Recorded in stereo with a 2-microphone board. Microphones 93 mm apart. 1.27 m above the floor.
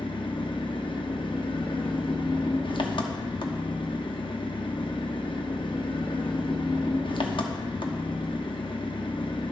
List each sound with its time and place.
0.0 s an engine running: 65° left (ahead or behind), 0.8 m